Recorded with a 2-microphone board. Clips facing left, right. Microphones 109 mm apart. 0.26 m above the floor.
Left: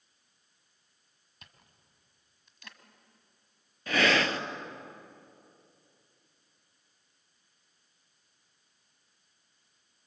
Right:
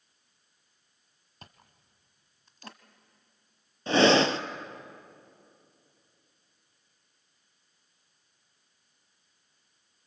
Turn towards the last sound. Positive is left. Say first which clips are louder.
# right 6 dB
turn(degrees=-30)  # may be behind; listen again after turning